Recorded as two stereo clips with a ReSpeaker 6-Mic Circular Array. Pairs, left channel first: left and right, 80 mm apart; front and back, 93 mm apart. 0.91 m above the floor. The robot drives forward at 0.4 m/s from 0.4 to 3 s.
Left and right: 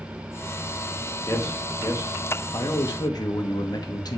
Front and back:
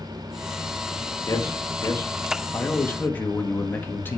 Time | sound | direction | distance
1.3 | a man speaking | 45° left | 1.8 m